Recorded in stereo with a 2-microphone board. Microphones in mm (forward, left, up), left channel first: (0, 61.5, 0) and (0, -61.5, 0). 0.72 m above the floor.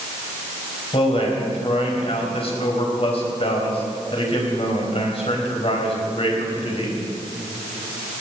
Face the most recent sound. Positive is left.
turn(degrees=55)  # may be behind; listen again after turning